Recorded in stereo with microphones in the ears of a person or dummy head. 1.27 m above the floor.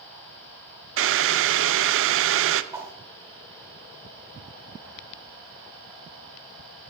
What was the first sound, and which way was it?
Boiling, 60° right (ahead or behind).